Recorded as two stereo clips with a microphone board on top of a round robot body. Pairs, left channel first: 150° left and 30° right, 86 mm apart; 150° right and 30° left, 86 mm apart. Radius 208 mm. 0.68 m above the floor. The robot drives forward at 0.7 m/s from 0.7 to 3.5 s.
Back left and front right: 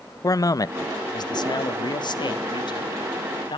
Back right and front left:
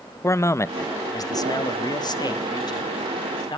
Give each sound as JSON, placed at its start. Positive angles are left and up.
{"t": 0.2, "sound": "a man speaking", "azimuth_deg": 170, "distance_m": 0.8}